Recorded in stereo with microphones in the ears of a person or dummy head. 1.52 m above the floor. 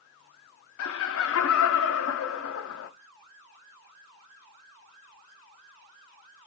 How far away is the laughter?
About 0.6 m.